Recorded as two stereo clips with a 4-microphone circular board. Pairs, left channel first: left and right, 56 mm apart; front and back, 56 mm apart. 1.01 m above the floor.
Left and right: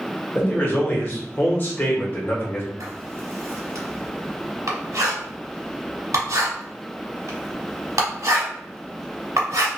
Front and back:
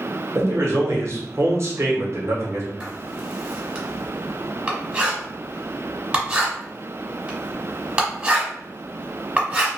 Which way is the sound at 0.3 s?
140° left.